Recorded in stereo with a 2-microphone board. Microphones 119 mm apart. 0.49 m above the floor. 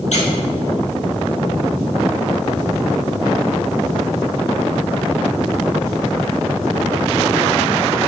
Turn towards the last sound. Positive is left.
turn(degrees=70)  # may be behind; listen again after turning